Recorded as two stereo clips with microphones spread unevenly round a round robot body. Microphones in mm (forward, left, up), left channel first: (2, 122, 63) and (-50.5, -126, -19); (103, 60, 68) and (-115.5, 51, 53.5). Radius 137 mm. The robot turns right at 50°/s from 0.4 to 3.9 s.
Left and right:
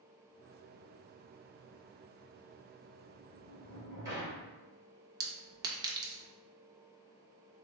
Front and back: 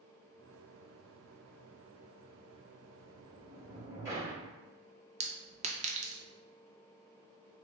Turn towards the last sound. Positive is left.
turn(degrees=-140)